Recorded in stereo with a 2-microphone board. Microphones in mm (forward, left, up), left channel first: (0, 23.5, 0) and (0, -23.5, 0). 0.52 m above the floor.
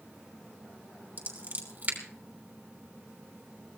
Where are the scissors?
40° right (ahead or behind), 3 m.